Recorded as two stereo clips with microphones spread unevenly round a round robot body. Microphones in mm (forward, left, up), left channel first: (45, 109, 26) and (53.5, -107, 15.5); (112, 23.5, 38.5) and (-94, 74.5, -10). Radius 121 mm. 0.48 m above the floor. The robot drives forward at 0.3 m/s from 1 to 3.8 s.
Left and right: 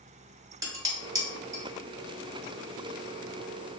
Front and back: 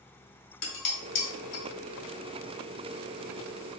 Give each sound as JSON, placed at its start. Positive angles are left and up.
{"t": 0.6, "sound": "dishes clattering", "azimuth_deg": -15, "distance_m": 1.5}